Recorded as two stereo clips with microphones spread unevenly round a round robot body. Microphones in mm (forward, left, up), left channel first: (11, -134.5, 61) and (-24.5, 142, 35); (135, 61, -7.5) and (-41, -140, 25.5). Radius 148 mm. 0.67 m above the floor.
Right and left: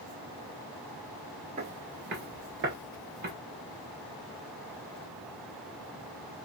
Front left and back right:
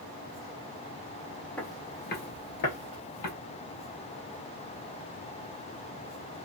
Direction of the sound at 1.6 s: 145° left.